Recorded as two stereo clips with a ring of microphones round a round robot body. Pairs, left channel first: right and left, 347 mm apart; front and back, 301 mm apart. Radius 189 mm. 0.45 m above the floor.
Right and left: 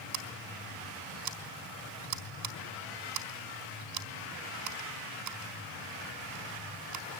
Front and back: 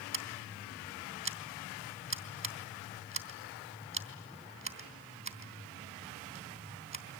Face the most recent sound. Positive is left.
turn(degrees=130)